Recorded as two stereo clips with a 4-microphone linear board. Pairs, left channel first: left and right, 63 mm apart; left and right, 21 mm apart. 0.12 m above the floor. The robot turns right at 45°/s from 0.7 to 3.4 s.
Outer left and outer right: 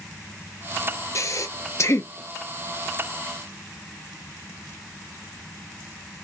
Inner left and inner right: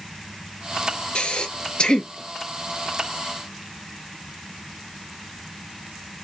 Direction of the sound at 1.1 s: 55° left (ahead or behind).